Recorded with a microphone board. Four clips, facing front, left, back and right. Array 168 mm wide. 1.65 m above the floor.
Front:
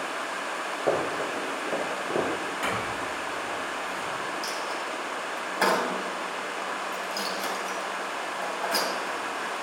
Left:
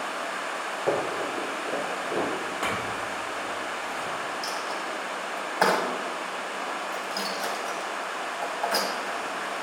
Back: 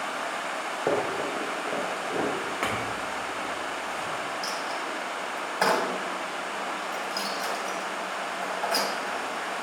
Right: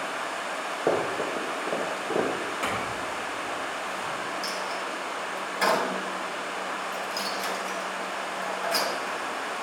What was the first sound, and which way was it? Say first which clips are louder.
Running footsteps: right 1 dB, even; 125° right.